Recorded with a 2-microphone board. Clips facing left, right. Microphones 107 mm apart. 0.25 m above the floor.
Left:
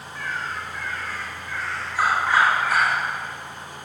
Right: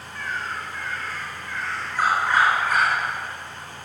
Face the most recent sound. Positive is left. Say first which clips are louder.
# even
turn(degrees=10)  # may be behind; listen again after turning